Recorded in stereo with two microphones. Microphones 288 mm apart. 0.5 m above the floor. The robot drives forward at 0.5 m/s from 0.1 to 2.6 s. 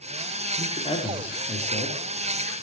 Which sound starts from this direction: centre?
A man speaking, at 0.6 s.